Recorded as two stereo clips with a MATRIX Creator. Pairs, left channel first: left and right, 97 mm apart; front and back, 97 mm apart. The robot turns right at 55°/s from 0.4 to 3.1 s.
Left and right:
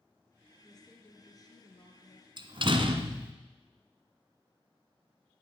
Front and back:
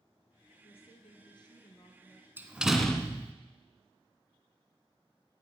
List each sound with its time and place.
0.6 s a woman speaking: straight ahead, 3 m; by 2.3 s 85° left, 3 m
2.4 s a door slam: 115° right, 1.5 m; by 3.3 s 70° right, 1.5 m